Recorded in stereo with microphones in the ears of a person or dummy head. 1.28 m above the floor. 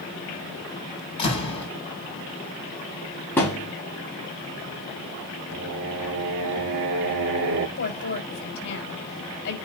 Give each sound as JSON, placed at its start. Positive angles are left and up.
{"t": 1.2, "sound": "a door slam", "side_deg": 30, "distance_m": 7.0}
{"t": 3.4, "sound": "a thud", "side_deg": 15, "distance_m": 5.0}
{"t": 5.5, "sound": "singing", "side_deg": -65, "distance_m": 2.0}
{"t": 7.8, "sound": "a woman speaking", "side_deg": 65, "distance_m": 4.5}